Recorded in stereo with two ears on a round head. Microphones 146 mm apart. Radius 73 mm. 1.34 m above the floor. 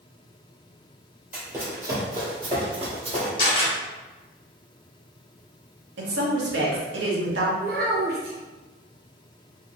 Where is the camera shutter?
30° left (ahead or behind), 1.4 m.